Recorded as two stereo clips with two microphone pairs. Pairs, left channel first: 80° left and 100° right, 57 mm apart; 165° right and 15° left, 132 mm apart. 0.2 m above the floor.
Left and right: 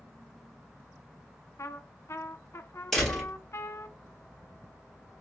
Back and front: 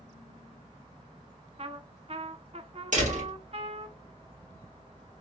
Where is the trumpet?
50° left, 0.5 m.